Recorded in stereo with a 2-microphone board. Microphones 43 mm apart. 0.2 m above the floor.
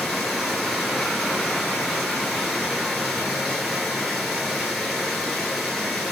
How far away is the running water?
About 0.9 m.